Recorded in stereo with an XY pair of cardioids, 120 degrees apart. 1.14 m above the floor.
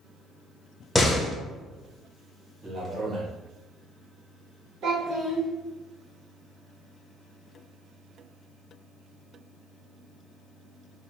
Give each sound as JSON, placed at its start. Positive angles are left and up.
{"t": 0.9, "sound": "a door slam", "azimuth_deg": 20, "distance_m": 0.7}
{"t": 2.6, "sound": "a man speaking", "azimuth_deg": -30, "distance_m": 1.4}
{"t": 4.8, "sound": "a child speaking", "azimuth_deg": -65, "distance_m": 1.0}